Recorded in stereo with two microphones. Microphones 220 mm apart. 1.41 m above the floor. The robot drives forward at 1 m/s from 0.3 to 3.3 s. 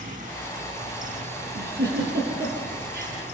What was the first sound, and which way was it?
A giggle, 55° right (ahead or behind).